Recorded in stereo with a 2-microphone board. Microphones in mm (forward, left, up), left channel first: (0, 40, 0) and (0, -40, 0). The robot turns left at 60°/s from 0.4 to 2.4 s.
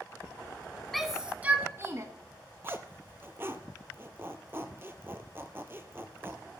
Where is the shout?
5° left (ahead or behind), 1.6 m; by 2.1 s 40° right (ahead or behind), 1.6 m.